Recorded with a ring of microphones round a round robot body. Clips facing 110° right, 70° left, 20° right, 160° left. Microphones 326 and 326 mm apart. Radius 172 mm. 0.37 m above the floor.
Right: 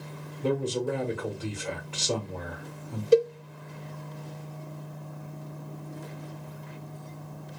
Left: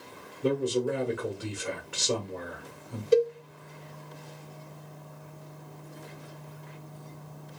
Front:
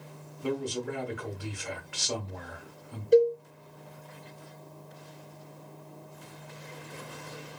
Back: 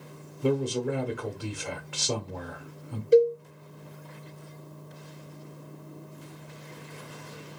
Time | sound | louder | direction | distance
0.4 | a man speaking | left 1 dB, back 5 dB | 135° left | 1.1 m
3.1 | a cowbell | right 2 dB, back 2 dB | 120° right | 0.7 m